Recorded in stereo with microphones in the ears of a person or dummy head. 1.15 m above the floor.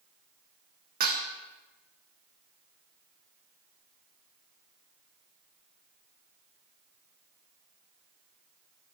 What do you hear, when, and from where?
1.0 s dishes clattering: 50° right (ahead or behind), 1.1 m